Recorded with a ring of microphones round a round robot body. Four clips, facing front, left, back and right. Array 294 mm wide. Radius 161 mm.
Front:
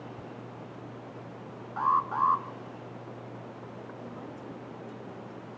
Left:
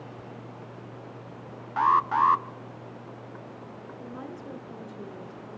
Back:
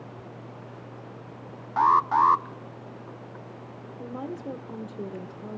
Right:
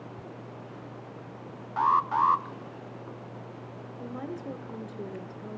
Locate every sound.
1.8 s an alarm: 165° left, 0.6 m
4.0 s a woman speaking: 155° right, 1.9 m